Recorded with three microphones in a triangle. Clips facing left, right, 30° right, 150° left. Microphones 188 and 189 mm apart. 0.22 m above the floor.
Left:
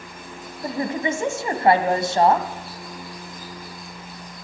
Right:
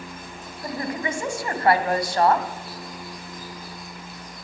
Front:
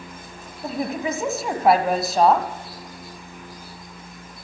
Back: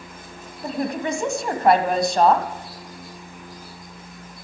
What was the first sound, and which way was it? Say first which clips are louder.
A woman speaking: left 4 dB, back 1 dB; 55° left.